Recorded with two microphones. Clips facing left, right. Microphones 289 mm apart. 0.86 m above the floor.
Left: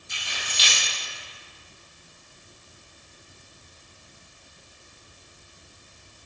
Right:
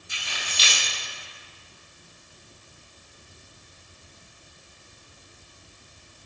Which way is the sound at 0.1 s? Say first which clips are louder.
Even; 35° right (ahead or behind).